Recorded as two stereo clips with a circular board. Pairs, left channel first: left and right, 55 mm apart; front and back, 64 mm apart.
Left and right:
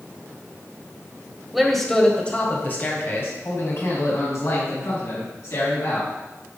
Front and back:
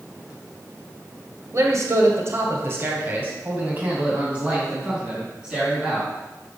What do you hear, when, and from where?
1.5 s a man speaking: straight behind, 1.5 m; by 6.1 s 100° left, 4 m